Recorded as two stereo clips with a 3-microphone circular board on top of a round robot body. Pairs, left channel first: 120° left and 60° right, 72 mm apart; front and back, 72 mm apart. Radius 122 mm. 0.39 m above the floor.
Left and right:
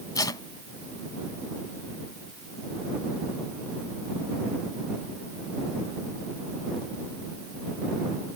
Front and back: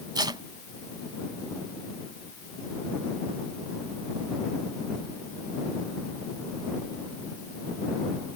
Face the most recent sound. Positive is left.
turn(degrees=155)